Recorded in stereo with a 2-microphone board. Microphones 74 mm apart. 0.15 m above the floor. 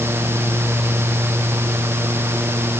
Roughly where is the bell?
I don't hear a bell.